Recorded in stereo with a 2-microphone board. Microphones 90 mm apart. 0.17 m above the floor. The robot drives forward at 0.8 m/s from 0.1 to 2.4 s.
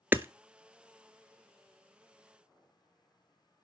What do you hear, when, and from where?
0.1 s hammering: 20° right (ahead or behind), 0.6 m; by 0.3 s 25° right (ahead or behind), 0.5 m